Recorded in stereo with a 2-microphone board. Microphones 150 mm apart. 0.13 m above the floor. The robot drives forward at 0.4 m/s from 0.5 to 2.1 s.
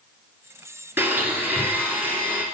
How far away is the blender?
About 2 m.